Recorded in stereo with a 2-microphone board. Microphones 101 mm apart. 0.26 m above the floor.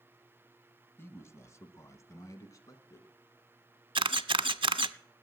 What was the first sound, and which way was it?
A man speaking, 25° left (ahead or behind).